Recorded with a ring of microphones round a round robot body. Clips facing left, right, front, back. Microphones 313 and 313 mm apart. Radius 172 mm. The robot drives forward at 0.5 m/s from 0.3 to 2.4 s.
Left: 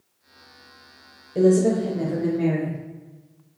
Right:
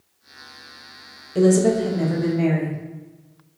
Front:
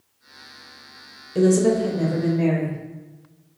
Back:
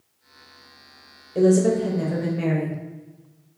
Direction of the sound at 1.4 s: 45° right.